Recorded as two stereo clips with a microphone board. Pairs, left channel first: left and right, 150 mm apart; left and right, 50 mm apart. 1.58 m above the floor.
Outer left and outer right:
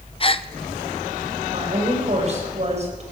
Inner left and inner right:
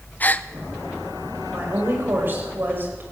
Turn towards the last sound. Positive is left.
turn(degrees=-45)  # may be behind; listen again after turning